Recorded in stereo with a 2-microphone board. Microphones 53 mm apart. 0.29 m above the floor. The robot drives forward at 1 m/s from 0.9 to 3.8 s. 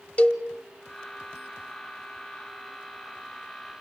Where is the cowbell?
25° left (ahead or behind), 1.3 m.